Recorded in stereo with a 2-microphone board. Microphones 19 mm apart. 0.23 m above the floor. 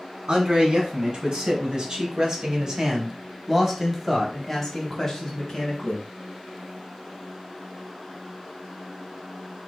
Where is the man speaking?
50° right (ahead or behind), 2 m; by 6.1 s 35° left (ahead or behind), 1.6 m.